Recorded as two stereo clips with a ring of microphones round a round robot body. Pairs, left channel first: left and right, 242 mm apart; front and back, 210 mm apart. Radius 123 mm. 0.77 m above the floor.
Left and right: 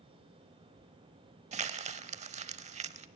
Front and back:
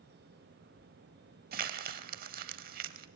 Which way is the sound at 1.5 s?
145° right.